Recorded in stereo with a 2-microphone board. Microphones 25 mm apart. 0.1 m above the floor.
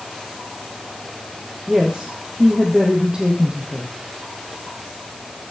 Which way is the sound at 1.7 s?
30° right (ahead or behind).